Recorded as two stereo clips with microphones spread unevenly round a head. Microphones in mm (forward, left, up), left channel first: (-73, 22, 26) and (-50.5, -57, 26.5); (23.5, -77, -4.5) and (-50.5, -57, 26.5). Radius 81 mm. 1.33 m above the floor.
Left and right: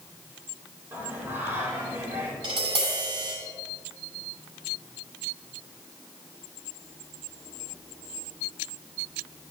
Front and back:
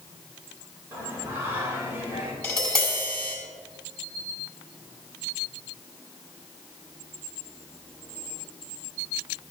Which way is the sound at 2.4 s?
90° right.